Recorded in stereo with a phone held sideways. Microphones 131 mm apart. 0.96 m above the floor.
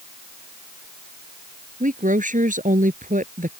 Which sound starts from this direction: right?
A woman speaking, at 1.8 s.